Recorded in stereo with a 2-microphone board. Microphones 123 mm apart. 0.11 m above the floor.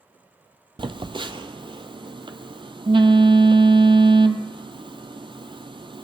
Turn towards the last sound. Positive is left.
turn(degrees=-45)  # may be behind; listen again after turning